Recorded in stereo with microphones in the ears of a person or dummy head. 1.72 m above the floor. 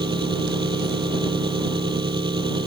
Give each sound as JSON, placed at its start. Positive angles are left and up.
{"t": 0.0, "sound": "an engine running", "side_deg": -25}